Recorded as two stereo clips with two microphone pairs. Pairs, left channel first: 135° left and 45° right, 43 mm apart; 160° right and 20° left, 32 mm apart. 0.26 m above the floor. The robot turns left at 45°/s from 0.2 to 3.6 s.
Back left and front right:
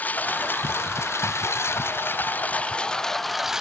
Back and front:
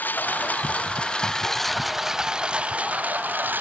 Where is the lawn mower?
175° right; by 3.6 s 30° left.